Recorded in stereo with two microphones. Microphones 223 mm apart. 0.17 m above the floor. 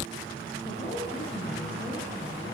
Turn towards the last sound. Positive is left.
turn(degrees=30)  # may be behind; listen again after turning